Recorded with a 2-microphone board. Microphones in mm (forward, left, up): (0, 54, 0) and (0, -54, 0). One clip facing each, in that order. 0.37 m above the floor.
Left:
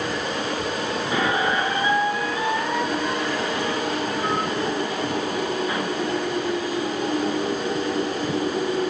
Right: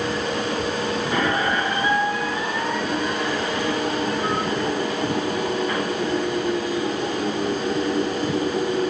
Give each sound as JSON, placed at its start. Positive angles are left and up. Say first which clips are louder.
{"t": 1.1, "sound": "a squeak", "louder": "left 1 dB", "side_deg": 10, "distance_m": 3.0}